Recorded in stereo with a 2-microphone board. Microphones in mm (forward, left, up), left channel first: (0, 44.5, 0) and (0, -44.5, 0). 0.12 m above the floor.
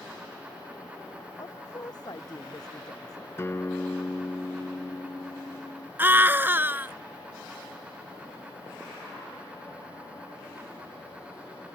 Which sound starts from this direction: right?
A scream, at 6.0 s.